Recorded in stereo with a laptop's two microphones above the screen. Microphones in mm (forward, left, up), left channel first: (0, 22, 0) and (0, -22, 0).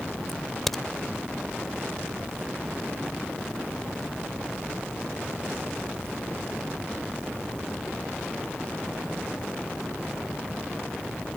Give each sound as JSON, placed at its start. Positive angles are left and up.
{"t": 0.3, "sound": "a crack", "side_deg": 5}